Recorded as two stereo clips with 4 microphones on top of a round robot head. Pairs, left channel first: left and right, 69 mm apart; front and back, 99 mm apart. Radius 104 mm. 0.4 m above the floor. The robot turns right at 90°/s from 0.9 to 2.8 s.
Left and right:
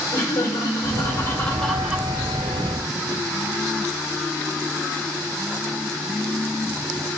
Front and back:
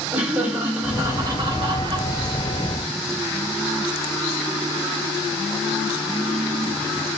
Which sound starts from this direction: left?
Laughter, at 0.1 s.